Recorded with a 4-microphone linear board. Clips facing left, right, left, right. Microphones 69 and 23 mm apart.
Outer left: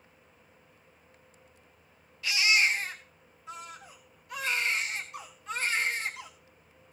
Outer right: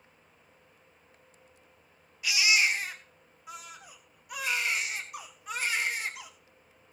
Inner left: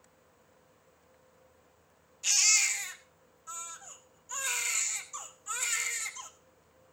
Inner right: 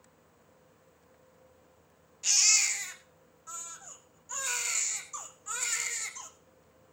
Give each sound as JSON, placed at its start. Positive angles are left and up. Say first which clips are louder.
{"t": 2.2, "sound": "a baby crying", "louder": "even, inner right 1 dB", "side_deg": -20, "distance_m": 1.7}